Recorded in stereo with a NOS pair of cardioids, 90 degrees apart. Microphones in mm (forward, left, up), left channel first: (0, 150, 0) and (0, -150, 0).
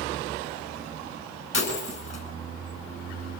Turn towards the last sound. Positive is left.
turn(degrees=45)